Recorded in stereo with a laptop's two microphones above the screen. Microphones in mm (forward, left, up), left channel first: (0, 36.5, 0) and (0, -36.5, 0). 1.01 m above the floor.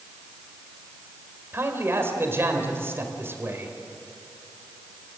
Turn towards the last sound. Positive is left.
turn(degrees=-35)  # may be behind; listen again after turning